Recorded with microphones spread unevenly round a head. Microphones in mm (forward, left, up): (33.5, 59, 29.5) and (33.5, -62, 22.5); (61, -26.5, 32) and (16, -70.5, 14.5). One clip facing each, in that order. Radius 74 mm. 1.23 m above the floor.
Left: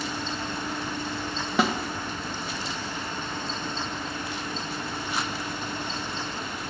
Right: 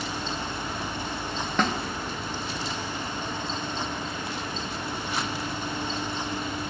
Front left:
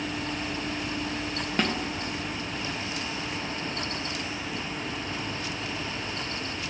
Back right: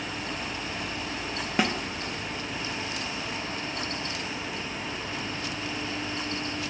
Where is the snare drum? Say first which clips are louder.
Left 2 dB, back right 1 dB; 170° left, 0.7 m.